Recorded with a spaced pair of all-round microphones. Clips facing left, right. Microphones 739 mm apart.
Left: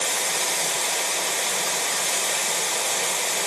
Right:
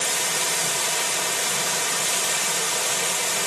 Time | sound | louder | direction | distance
0.0 | running water | left 1 dB | 45° right (ahead or behind) | 0.7 m